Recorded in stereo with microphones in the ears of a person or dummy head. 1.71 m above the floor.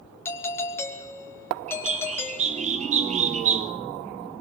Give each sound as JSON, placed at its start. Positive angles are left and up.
{"t": 0.2, "sound": "a doorbell", "side_deg": 25, "distance_m": 2.5}
{"t": 1.7, "sound": "a bird", "side_deg": -40, "distance_m": 1.2}